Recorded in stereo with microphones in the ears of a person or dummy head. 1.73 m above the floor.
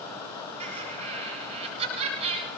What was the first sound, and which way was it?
Laughter, 30° right (ahead or behind).